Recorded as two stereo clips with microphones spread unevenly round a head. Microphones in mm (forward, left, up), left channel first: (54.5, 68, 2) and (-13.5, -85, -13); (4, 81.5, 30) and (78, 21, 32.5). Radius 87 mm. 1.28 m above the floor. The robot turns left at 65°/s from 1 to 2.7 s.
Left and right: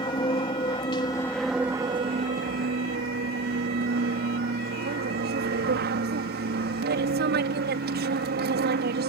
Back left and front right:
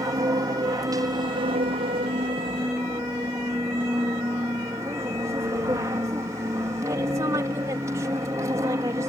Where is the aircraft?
5° left; by 9.1 s 105° right.